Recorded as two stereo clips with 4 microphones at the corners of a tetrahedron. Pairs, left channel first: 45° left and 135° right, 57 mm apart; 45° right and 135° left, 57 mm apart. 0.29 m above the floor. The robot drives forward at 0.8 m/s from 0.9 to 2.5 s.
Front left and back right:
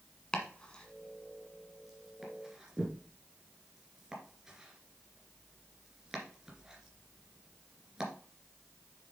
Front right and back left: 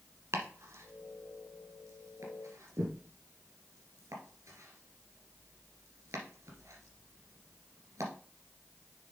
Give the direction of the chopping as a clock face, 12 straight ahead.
8 o'clock.